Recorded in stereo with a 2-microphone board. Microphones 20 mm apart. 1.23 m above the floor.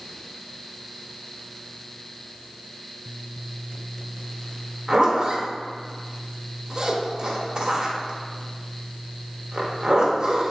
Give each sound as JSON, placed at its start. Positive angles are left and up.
{"t": 4.9, "sound": "a zipper", "side_deg": -35, "distance_m": 0.5}